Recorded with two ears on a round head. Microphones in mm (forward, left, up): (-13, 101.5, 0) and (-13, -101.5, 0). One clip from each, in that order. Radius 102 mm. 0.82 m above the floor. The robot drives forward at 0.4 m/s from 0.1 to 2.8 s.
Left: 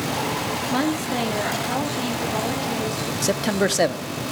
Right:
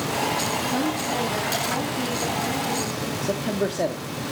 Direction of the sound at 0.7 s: 50° left (ahead or behind).